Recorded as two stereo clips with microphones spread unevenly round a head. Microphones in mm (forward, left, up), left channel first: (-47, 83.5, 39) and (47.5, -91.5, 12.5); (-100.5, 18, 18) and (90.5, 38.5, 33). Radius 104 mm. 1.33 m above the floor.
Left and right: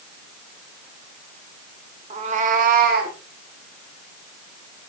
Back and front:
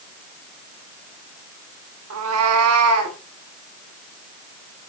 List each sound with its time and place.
2.1 s a cat meowing: straight ahead, 1.6 m; by 3.2 s 15° right, 2.5 m